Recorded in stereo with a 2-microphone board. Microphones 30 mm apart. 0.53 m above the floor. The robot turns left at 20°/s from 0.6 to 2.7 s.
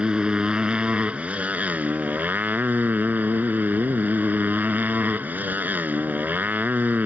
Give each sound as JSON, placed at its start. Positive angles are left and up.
{"t": 0.0, "sound": "a motorcycle", "azimuth_deg": -35}